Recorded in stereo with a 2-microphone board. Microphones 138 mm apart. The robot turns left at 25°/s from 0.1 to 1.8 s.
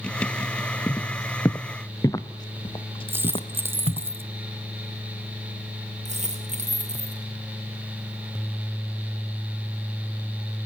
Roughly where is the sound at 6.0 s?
Right.